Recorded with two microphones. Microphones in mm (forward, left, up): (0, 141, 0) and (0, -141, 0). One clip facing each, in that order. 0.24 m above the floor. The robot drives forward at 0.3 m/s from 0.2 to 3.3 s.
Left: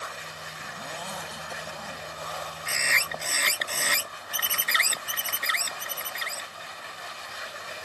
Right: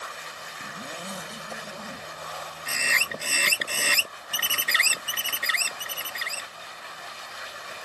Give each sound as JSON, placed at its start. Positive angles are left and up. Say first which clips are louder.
{"t": 0.6, "sound": "a zipper", "louder": "right 2 dB", "side_deg": -30}
{"t": 2.7, "sound": "a bird", "louder": "even", "side_deg": -40}